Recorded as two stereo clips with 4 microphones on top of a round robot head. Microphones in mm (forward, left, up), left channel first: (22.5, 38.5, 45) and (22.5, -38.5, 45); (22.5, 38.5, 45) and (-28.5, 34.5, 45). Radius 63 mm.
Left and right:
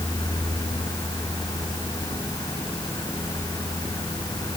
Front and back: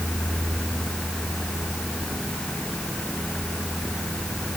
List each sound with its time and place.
Only background noise.